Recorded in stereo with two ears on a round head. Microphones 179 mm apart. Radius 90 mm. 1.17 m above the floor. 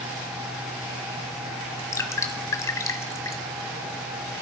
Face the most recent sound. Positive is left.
turn(degrees=15)  # may be behind; listen again after turning